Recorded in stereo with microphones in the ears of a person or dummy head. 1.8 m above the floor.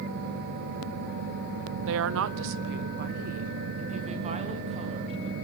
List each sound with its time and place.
1.9 s a woman speaking: 70° right (ahead or behind), 1.0 m; by 5.3 s 30° right (ahead or behind), 3.5 m